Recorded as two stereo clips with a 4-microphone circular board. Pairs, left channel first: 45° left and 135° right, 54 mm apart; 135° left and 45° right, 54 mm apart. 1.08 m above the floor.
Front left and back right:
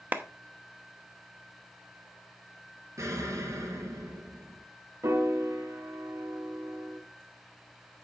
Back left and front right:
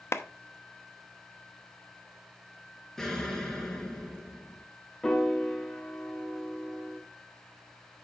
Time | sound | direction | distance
0.1 | a clap | 170° left | 0.9 m
3.0 | an explosion | 145° right | 3 m
5.0 | a piano | 145° right | 1.8 m